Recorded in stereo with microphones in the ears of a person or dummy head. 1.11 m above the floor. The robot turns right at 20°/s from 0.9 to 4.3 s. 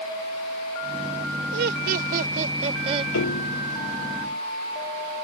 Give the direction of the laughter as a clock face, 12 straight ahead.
2 o'clock.